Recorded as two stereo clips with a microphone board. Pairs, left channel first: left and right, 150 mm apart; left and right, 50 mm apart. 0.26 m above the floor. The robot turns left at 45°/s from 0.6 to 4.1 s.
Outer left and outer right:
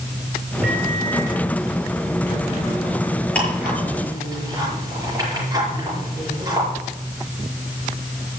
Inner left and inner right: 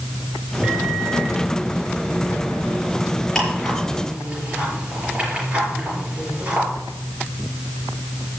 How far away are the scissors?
No scissors in this recording.